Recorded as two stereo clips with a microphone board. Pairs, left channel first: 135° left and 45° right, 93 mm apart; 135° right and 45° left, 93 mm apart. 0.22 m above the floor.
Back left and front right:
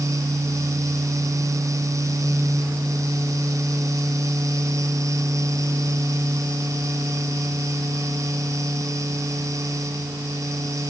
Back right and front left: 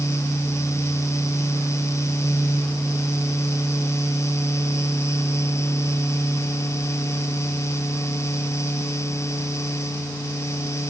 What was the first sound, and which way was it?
Only background noise.